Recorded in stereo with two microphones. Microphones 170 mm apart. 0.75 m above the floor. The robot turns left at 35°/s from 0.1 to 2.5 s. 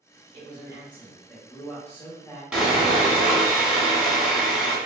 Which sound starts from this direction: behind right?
A man speaking, at 0.3 s.